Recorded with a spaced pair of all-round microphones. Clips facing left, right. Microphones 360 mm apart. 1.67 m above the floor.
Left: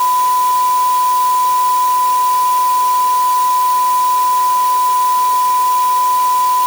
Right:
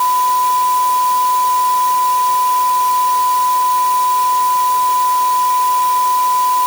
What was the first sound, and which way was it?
Only background noise.